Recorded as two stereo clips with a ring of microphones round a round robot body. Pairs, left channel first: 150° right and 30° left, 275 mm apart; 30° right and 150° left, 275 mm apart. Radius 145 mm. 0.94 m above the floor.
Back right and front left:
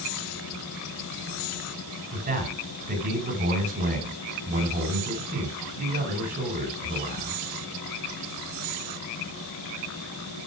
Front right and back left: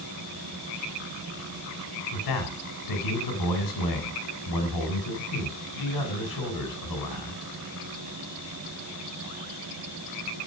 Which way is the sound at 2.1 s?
35° right.